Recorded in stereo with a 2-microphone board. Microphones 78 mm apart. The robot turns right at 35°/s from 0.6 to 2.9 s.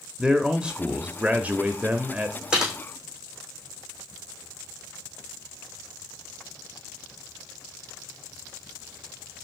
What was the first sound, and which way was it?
A man speaking, 10° right (ahead or behind).